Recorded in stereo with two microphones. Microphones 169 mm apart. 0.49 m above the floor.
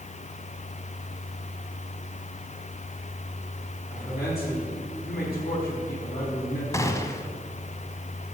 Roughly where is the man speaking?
Left.